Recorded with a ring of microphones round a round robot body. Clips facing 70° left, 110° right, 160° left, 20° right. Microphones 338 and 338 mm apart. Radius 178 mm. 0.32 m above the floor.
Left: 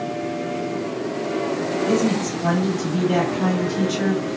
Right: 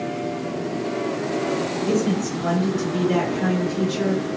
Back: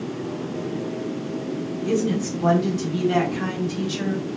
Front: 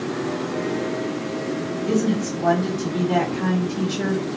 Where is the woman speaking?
130° right, 1.6 m; by 4.2 s 145° left, 2.0 m.